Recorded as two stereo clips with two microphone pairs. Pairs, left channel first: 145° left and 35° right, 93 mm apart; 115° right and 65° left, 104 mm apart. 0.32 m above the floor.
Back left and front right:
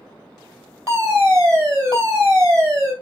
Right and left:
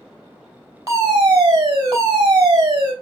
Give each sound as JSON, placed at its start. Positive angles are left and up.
{"t": 0.9, "sound": "a fire alarm", "azimuth_deg": 15, "distance_m": 3.5}